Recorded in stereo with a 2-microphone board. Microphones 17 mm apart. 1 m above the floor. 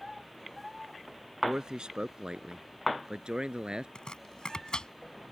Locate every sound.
1.4 s a man speaking: 60° right (ahead or behind); by 3.9 s 70° right (ahead or behind)
4.0 s chopping: 60° left (ahead or behind)